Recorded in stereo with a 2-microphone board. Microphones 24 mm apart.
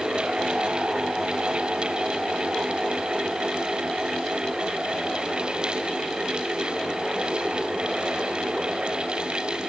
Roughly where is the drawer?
No drawer in this recording.